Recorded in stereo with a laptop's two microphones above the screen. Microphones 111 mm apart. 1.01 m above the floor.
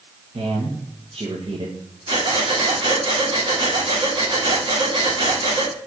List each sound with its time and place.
0.3 s a man speaking: 55° right (ahead or behind), 1.1 m
2.1 s breathing: 50° right (ahead or behind), 1.7 m